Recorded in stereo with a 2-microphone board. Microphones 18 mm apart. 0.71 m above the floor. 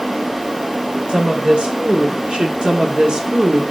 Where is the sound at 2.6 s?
60° right (ahead or behind), 1.6 m.